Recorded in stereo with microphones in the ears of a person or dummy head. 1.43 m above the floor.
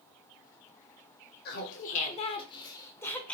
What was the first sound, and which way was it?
Laughter, 55° left (ahead or behind).